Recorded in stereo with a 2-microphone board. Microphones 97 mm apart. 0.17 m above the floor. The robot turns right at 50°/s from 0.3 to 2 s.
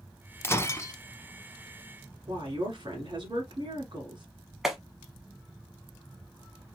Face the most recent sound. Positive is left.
turn(degrees=-5)  # may be behind; listen again after turning